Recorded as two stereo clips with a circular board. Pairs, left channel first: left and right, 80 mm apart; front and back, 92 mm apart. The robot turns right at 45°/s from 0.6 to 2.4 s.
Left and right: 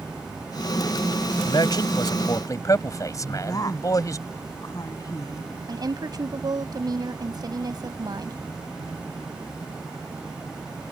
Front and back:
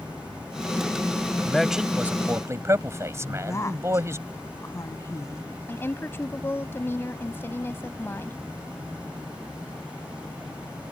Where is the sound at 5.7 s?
65° right.